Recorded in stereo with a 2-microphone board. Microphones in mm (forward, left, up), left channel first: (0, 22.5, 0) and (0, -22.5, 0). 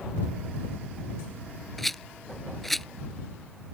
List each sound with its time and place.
1.8 s a rattle: 5° left (ahead or behind)